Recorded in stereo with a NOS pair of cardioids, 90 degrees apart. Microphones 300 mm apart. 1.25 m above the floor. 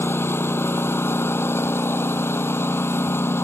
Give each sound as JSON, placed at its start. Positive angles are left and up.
{"t": 0.0, "sound": "a lawn mower", "azimuth_deg": 10}